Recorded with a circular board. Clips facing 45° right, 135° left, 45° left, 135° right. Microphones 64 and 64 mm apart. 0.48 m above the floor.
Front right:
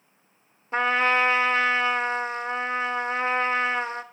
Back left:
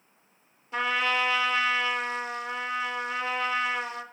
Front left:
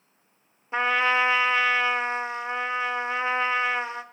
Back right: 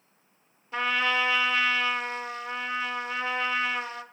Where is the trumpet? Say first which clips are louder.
Front right 5 dB, front left 4 dB; 10° right, 0.7 m.